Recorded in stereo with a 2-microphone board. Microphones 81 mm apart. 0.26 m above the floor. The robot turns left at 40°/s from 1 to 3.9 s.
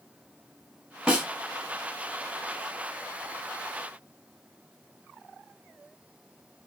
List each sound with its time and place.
1.1 s a snare drum: 15° right (ahead or behind), 1.2 m; by 1.3 s 10° right (ahead or behind), 1.2 m